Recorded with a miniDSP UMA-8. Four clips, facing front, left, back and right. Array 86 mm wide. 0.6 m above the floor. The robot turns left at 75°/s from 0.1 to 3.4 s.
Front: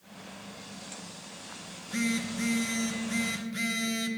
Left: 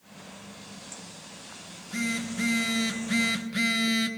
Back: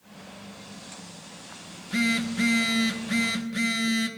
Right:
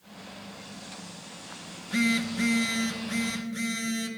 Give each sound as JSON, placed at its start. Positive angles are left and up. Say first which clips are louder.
{"t": 1.7, "sound": "a phone buzzing", "louder": "right 5 dB, back 4 dB", "azimuth_deg": -130, "distance_m": 0.9}